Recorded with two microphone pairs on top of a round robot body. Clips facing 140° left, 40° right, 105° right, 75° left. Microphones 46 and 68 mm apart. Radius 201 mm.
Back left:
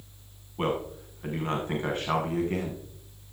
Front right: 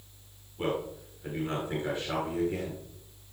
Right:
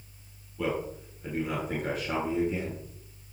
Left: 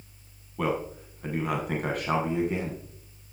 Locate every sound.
0.6 s a man speaking: 100° left, 4.5 m